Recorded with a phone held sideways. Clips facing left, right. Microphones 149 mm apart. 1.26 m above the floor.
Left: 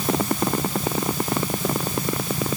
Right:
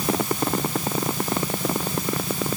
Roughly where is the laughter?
No laughter in this recording.